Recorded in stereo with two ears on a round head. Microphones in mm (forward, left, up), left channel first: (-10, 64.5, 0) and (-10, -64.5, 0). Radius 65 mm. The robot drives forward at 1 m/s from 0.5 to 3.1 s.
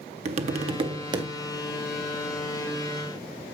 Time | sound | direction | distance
0.2 | tapping | 50° right (ahead or behind) | 1.0 m